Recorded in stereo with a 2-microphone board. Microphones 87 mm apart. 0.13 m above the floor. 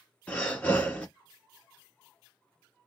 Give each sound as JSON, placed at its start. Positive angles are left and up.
{"t": 0.3, "sound": "breathing", "side_deg": 20, "distance_m": 1.1}